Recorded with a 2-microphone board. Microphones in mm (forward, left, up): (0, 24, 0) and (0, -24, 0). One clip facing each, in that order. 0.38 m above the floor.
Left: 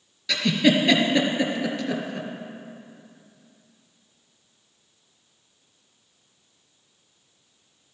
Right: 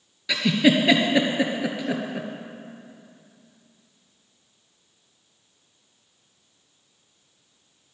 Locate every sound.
0.3 s a giggle: 10° right (ahead or behind), 1.3 m